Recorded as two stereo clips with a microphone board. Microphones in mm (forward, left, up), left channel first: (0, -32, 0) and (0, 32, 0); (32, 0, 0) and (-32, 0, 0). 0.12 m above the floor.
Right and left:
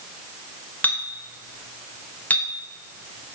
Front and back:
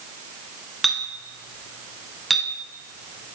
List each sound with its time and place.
0.8 s a clink: 90° right, 1.0 m